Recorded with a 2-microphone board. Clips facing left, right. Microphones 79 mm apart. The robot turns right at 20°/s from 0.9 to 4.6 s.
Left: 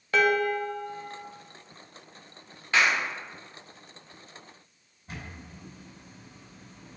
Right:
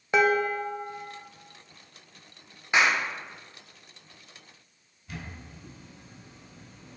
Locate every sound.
0.1 s dishes clattering: 20° right (ahead or behind), 0.7 m; by 1.2 s 15° right (ahead or behind), 0.7 m
2.7 s a clap: 15° right (ahead or behind), 0.9 m; by 3.0 s 25° right (ahead or behind), 0.9 m
5.1 s a camera shutter: 35° left (ahead or behind), 2.5 m